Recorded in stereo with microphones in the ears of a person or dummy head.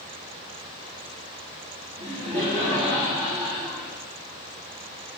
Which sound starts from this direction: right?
Laughter, at 2.0 s.